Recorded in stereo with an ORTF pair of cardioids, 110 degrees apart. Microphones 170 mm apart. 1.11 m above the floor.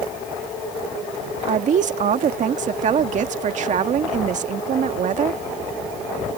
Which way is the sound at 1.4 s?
50° right.